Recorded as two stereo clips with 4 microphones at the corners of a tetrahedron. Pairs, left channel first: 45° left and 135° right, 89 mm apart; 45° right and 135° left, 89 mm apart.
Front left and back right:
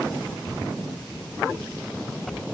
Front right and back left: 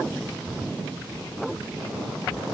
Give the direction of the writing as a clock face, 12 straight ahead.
I don't hear writing.